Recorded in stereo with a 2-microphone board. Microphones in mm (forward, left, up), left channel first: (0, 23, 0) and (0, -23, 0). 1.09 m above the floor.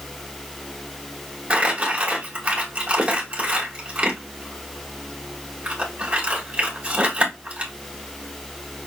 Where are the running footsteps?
No running footsteps in this recording.